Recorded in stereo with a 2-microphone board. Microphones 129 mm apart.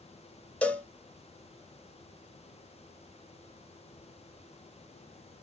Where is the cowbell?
10° left (ahead or behind), 0.5 m.